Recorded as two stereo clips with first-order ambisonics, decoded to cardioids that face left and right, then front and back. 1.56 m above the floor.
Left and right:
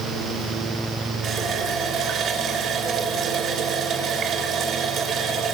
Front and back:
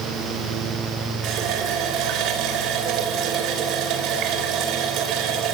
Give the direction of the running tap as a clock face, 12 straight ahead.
5 o'clock.